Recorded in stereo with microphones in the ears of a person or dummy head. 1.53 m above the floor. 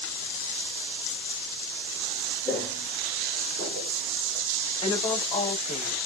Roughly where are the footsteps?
Centre.